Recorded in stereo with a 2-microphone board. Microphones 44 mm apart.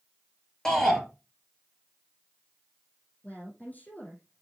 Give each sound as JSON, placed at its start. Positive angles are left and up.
{"t": 0.7, "sound": "a shout", "side_deg": 10, "distance_m": 3.0}
{"t": 3.2, "sound": "a woman speaking", "side_deg": 40, "distance_m": 4.5}